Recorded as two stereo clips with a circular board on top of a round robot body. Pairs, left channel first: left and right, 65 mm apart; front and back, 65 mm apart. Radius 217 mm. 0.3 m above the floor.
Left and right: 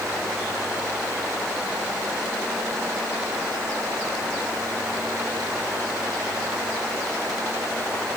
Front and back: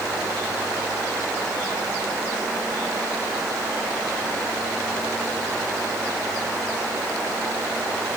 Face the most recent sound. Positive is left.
No sound to turn to.